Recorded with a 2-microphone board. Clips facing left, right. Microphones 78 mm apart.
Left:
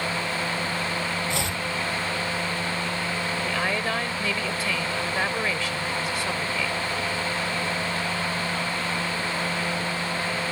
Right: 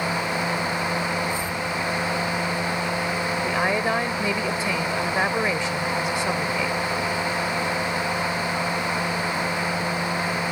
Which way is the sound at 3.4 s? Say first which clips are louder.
Right 5 dB; 20° right (ahead or behind).